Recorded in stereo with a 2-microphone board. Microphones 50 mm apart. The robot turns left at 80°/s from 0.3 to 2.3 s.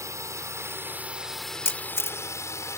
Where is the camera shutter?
55° left (ahead or behind).